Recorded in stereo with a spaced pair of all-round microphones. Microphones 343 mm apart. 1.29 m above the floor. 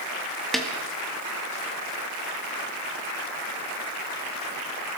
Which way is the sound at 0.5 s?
Centre (ahead or behind).